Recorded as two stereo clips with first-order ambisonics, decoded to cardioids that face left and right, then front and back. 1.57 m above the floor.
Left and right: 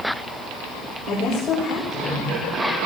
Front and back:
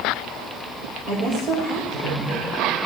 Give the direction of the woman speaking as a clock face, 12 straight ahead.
7 o'clock.